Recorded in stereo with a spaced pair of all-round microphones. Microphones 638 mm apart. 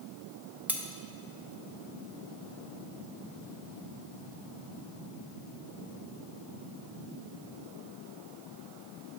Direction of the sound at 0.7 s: 5° right (ahead or behind).